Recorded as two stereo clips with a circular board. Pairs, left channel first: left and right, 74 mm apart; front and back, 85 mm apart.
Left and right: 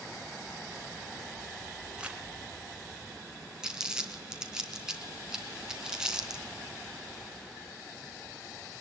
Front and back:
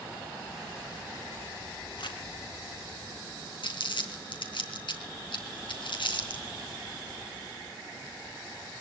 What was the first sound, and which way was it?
Crumpling, 15° right.